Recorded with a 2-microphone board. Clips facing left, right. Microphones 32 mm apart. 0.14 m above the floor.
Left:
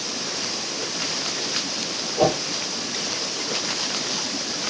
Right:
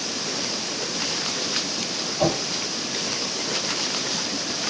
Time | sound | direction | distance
2.2 | a whoosh | 65° left (ahead or behind) | 3 m